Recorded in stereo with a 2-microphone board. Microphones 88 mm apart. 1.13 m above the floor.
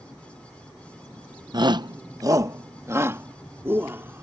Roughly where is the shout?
Right.